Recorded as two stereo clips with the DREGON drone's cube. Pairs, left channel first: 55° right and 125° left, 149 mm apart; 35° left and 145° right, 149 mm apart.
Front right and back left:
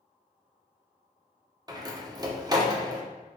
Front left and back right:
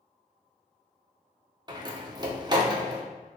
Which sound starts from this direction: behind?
A door slam, at 1.7 s.